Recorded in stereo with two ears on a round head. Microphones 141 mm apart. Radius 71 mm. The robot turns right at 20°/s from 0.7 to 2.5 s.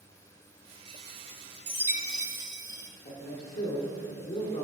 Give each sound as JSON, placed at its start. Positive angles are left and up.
{"t": 1.7, "sound": "a chime", "side_deg": -15, "distance_m": 0.8}
{"t": 3.0, "sound": "a man speaking", "side_deg": 40, "distance_m": 1.7}